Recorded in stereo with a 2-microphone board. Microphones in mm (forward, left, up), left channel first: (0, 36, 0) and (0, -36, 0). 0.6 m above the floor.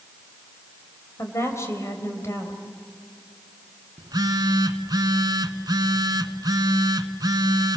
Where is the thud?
I don't hear a thud.